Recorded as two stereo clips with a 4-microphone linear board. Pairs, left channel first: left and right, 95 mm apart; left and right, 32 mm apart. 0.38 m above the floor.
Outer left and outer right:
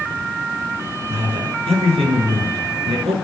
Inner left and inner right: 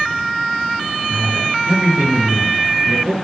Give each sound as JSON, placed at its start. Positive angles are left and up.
{"t": 1.1, "sound": "a man speaking", "side_deg": -75, "distance_m": 5.5}